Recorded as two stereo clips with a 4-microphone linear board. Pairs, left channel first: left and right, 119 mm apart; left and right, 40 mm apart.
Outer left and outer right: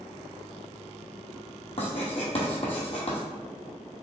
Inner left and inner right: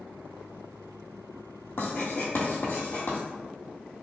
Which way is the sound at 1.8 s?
60° left (ahead or behind).